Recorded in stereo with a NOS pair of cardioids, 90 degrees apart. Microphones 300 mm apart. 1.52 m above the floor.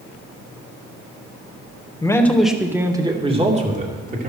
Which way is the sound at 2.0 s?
10° left.